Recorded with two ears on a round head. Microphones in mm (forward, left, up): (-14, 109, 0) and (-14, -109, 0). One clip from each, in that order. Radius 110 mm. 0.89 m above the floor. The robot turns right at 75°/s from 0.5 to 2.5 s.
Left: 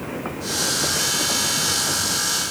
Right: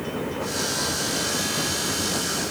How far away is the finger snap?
No finger snap in this recording.